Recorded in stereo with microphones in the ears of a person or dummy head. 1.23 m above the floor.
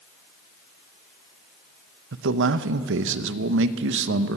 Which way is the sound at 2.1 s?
85° right.